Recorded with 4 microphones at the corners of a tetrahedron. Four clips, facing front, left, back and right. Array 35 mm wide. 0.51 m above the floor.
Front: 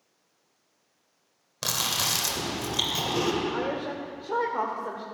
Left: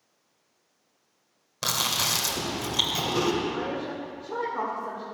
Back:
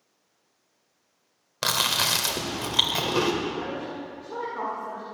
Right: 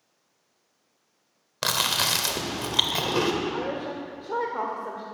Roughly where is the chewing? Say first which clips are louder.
Right 2 dB, back 4 dB; behind right.